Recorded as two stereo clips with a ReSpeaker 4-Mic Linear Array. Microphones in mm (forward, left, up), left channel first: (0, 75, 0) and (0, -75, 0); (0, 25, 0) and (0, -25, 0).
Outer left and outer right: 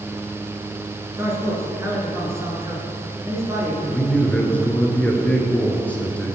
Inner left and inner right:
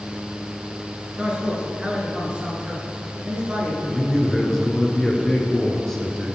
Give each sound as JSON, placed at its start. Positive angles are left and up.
{"t": 1.2, "sound": "a man speaking", "side_deg": -20, "distance_m": 1.6}
{"t": 3.9, "sound": "a man speaking", "side_deg": 10, "distance_m": 1.2}